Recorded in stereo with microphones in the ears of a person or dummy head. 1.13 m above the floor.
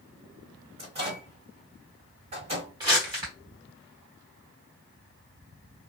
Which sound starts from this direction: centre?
Crumpling, at 2.8 s.